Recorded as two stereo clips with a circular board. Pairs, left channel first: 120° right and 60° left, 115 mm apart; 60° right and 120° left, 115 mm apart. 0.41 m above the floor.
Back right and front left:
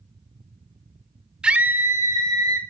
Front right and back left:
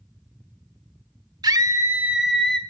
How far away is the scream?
About 0.9 m.